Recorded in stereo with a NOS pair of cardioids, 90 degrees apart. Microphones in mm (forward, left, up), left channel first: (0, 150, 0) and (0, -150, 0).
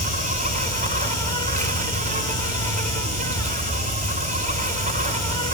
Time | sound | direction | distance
0.0 | an insect | 25° right | 6 m